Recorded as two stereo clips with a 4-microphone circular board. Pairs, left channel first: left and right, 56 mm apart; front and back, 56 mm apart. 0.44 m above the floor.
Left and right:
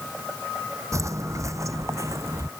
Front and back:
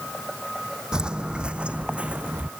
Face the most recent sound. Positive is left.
turn(degrees=-115)